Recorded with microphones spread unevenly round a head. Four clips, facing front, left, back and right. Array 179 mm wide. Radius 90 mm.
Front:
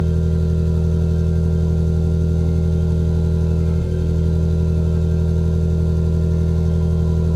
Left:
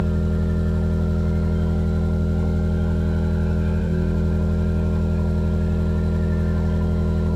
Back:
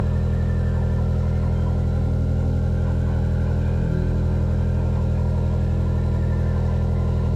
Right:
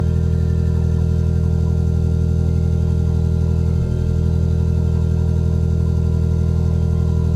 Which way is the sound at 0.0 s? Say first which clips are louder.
Right 1 dB, front 5 dB; 70° right.